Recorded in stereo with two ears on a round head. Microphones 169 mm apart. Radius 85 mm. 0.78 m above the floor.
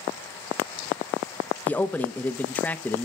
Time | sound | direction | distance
1.7 | a man speaking | 10° left (ahead or behind) | 0.7 m